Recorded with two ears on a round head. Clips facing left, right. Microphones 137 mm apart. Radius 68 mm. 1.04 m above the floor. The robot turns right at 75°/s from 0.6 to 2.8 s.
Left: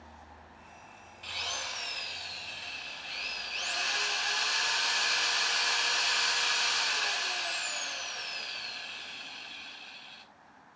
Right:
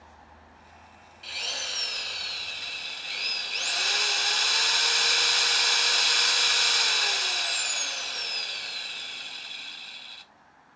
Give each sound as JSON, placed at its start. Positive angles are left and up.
{"t": 1.2, "sound": "a drill", "azimuth_deg": -175, "distance_m": 1.7}